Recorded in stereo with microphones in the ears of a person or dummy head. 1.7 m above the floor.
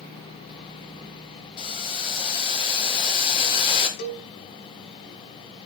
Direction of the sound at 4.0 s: 60° left (ahead or behind).